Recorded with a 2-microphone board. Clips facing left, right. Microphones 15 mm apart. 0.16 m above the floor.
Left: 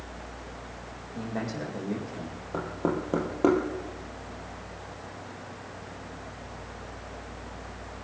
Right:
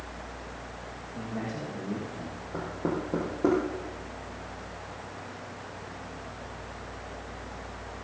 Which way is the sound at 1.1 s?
80° left.